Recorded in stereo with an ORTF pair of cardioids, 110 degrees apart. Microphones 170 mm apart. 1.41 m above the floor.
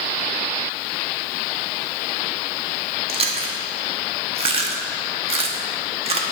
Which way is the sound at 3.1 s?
35° right.